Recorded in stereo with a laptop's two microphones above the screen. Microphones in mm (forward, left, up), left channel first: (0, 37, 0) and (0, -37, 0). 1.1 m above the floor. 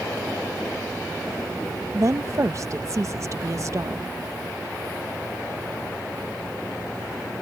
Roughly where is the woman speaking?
Right.